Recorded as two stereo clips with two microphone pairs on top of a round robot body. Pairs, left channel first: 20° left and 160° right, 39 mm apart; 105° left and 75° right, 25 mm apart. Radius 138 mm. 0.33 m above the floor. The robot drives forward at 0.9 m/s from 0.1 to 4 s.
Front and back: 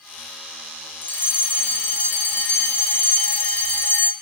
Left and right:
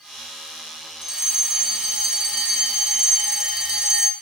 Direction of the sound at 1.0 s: 10° right.